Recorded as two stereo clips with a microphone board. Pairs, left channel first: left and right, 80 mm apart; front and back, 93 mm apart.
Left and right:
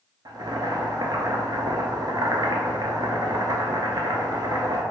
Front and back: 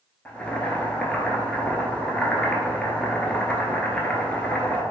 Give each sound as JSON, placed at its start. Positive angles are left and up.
{"t": 0.2, "sound": "boiling", "azimuth_deg": -75, "distance_m": 0.5}